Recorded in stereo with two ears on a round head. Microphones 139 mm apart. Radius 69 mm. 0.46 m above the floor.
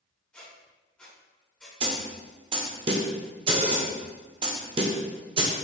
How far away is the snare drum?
About 0.5 m.